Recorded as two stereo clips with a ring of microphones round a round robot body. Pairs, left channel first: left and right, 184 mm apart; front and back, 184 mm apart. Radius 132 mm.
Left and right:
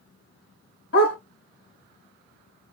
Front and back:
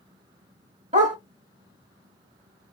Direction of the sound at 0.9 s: 130° left.